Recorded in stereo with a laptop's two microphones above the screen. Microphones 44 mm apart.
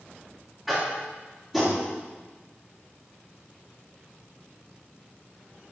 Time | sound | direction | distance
0.7 | tapping | 5° right (ahead or behind) | 3 m